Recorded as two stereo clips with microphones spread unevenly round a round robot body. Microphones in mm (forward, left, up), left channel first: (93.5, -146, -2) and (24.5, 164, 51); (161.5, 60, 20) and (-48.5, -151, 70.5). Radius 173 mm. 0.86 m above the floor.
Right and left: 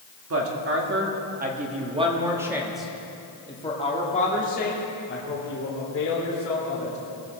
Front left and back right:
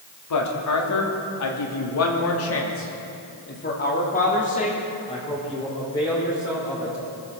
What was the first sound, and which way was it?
A woman speaking, 55° left.